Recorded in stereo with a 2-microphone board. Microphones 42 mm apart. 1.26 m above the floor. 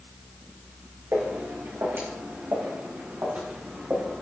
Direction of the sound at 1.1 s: 75° right (ahead or behind).